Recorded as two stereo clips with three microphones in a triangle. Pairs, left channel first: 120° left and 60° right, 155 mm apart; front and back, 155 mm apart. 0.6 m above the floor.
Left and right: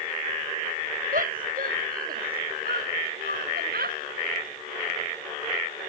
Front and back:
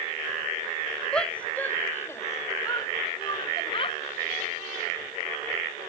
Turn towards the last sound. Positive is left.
turn(degrees=-55)